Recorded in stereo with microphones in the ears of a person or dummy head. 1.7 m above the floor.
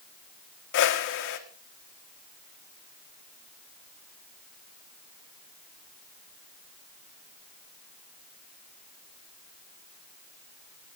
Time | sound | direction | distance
0.7 | a whoosh | 80° left | 1.7 m